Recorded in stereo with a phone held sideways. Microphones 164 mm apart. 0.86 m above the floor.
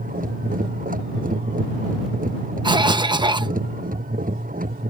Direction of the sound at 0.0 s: 55° right (ahead or behind).